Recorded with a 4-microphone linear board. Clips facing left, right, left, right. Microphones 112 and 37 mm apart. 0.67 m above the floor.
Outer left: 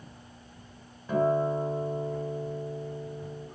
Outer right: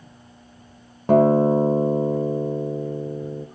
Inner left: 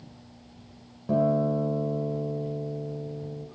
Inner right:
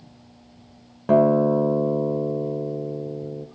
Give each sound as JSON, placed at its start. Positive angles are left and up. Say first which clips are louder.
{"t": 1.1, "sound": "a guitar", "louder": "outer right 10 dB, inner right 7 dB", "side_deg": -70, "distance_m": 1.6}